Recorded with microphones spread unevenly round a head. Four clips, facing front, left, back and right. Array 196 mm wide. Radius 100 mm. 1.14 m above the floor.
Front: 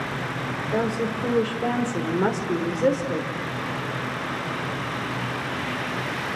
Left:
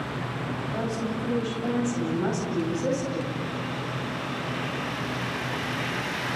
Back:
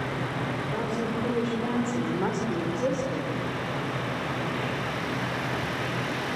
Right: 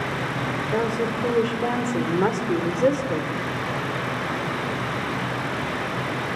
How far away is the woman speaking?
About 5 m.